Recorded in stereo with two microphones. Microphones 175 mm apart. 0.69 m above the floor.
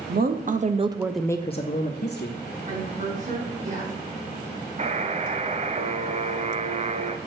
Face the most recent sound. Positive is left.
turn(degrees=-40)  # may be behind; listen again after turning